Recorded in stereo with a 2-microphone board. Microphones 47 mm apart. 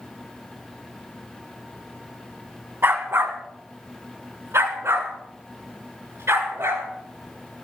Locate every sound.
2.8 s a dog barking: 60° right (ahead or behind), 3 m; by 6.8 s 85° right, 8 m